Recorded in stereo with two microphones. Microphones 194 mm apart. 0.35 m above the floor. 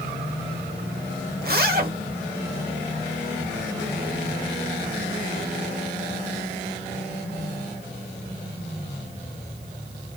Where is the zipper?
55° right (ahead or behind), 0.8 m.